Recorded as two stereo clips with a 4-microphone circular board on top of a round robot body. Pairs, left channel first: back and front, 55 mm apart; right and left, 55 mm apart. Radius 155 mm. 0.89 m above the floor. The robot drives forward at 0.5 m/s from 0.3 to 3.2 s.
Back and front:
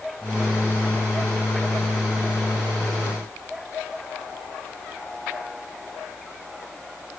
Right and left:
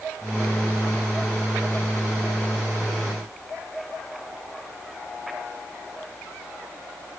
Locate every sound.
Only background noise.